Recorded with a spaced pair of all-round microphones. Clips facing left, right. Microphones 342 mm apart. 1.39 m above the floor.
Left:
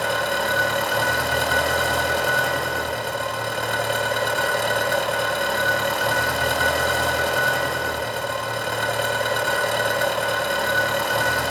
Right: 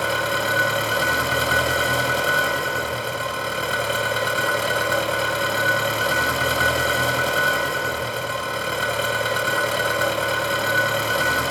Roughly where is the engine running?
Centre.